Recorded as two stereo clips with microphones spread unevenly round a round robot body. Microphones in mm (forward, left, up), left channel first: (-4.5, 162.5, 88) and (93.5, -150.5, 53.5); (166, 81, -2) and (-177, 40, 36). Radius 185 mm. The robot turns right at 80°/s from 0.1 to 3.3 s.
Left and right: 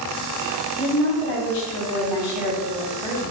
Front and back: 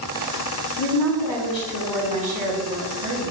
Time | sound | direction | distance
0.8 | a woman speaking | straight ahead | 3.5 m